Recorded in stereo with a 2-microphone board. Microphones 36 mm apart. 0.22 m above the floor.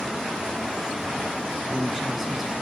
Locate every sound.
1.6 s a woman speaking: 10° right (ahead or behind), 2.5 m